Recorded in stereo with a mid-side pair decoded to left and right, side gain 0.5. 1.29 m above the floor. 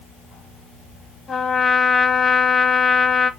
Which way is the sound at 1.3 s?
30° left.